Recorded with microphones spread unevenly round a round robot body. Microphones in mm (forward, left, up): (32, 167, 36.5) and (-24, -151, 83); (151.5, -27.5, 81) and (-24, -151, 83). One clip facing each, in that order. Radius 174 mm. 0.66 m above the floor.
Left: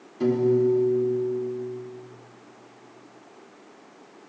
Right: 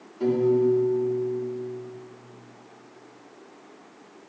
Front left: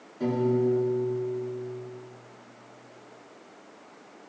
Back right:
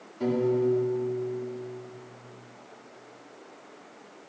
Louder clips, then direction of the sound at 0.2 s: Even, even; 120° left.